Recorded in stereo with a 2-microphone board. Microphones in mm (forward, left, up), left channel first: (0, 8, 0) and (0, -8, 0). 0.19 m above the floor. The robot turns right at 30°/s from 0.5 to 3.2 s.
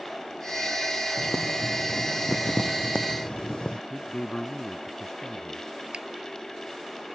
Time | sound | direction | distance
1.2 | boiling | 55° left | ?
3.9 | a man speaking | 35° left (ahead or behind) | ?
5.9 | a finger snap | 70° right (ahead or behind) | ?